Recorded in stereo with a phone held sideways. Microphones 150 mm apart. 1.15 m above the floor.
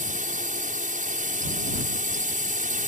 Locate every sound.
0.0 s a drone: 55° right (ahead or behind)